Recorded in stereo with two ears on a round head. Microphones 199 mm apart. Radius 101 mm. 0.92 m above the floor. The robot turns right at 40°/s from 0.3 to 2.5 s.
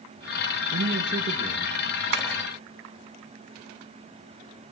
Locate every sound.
0.7 s a man speaking: 75° right, 1.2 m; by 1.8 s 35° right, 1.2 m
2.1 s tapping: 50° right (ahead or behind), 3.5 m; by 2.3 s 45° right (ahead or behind), 3.5 m